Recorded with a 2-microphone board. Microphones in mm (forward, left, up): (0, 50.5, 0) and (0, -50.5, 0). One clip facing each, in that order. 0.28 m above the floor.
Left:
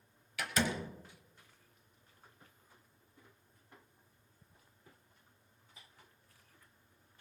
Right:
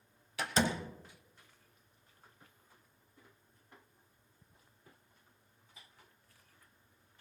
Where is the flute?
No flute in this recording.